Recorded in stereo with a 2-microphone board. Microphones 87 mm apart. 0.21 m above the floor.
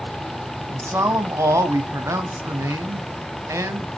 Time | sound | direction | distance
0.7 | a man speaking | 35° right (ahead or behind) | 1.9 m